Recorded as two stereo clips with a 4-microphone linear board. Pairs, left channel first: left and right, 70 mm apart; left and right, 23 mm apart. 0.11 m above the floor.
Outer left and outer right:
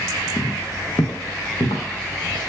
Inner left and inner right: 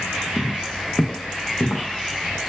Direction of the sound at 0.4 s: 45° left (ahead or behind).